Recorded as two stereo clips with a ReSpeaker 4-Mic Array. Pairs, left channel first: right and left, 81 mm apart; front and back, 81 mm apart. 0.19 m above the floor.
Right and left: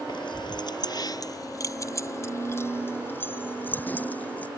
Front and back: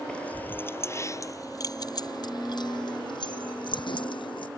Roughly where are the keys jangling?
Right.